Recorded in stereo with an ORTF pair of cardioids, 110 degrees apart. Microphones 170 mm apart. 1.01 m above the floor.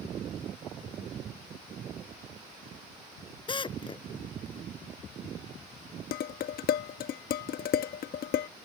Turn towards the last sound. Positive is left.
turn(degrees=65)